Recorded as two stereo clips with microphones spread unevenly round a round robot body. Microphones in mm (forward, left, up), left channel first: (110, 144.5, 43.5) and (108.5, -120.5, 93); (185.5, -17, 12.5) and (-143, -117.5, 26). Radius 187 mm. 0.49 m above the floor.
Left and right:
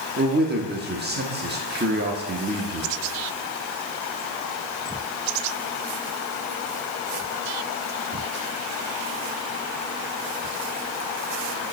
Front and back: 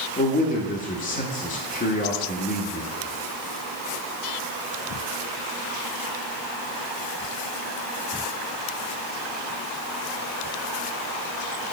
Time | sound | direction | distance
0.2 | a man speaking | 40° right | 1.0 m